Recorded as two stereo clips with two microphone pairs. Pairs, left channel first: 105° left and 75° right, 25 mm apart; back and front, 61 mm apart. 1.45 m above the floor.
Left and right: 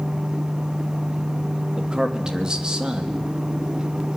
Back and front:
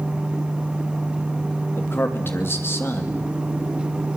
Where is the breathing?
No breathing in this recording.